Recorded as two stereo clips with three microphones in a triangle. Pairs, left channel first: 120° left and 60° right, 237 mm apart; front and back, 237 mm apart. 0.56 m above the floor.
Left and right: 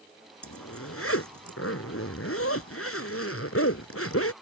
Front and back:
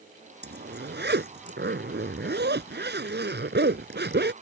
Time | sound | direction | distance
0.4 | a zipper | 135° left | ?